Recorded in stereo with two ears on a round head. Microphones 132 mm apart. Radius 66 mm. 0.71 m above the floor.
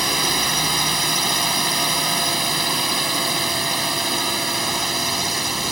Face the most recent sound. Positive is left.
turn(degrees=0)  # may be behind; listen again after turning